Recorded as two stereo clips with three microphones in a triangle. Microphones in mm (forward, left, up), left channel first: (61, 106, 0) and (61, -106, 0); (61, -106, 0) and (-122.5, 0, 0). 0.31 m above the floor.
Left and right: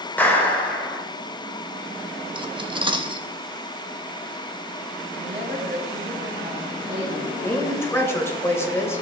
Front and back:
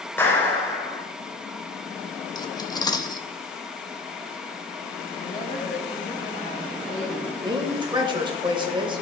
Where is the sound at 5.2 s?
75° right, 2 m.